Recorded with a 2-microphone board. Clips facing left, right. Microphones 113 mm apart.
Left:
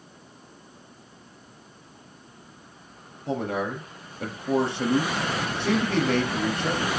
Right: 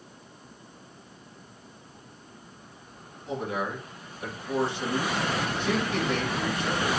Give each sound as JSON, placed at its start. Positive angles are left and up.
{"t": 3.3, "sound": "a man speaking", "side_deg": 70, "distance_m": 4.0}